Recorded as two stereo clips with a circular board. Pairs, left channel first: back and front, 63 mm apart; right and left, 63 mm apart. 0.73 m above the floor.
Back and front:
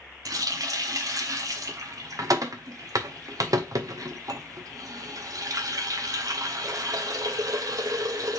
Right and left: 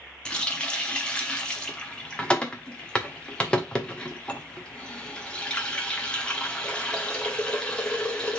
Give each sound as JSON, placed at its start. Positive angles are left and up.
{"t": 0.2, "sound": "a running tap", "azimuth_deg": -15, "distance_m": 1.0}